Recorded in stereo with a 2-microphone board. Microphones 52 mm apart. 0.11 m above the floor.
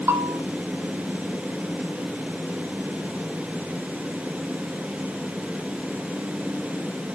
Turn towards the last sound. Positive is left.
turn(degrees=-65)  # may be behind; listen again after turning